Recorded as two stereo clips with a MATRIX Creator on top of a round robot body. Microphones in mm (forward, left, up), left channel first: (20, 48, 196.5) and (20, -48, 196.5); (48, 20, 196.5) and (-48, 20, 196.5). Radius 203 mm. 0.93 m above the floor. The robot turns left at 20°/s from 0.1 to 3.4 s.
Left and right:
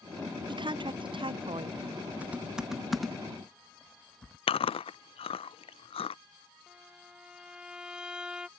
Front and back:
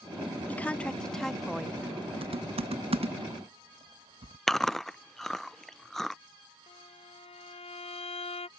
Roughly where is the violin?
Ahead.